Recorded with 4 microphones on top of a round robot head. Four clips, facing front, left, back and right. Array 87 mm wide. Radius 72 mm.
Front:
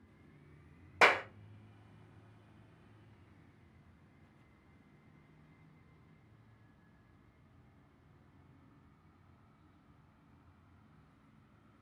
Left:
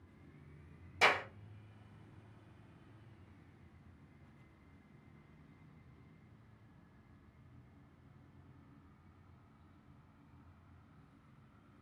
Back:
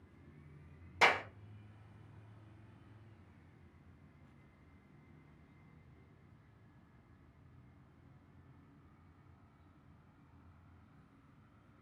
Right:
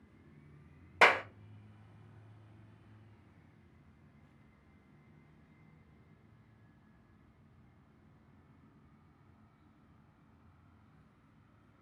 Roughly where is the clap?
Ahead right.